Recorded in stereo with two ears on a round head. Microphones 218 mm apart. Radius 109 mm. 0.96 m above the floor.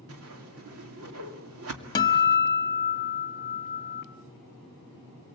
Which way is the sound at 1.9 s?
20° left (ahead or behind).